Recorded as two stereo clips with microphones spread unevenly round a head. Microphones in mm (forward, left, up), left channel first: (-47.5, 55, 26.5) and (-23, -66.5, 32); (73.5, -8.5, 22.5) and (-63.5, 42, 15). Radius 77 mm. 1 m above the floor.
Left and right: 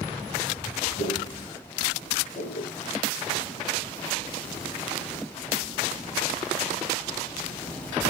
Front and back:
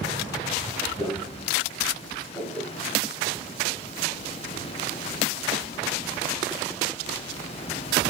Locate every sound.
1.0 s footsteps: 70° left, 2.5 m; by 2.7 s 95° left, 3 m